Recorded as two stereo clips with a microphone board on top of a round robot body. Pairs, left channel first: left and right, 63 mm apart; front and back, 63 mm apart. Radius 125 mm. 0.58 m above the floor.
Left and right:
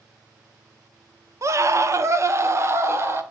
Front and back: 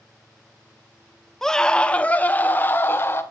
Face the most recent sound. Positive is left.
turn(degrees=-50)